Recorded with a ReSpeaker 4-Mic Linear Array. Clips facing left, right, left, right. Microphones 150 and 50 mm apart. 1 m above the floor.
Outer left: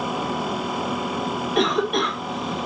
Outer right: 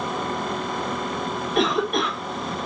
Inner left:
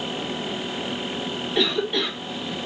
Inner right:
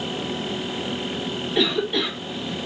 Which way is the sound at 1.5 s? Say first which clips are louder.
Outer left 1 dB, inner right 1 dB; centre (ahead or behind).